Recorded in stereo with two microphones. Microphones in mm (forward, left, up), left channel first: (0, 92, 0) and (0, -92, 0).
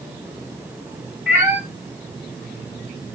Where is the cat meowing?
10° right (ahead or behind), 1.9 m.